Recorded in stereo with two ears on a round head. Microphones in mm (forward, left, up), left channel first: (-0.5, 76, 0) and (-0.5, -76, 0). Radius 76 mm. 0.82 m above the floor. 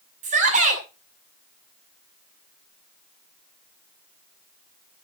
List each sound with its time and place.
0.2 s a shout: 45° right (ahead or behind), 7 m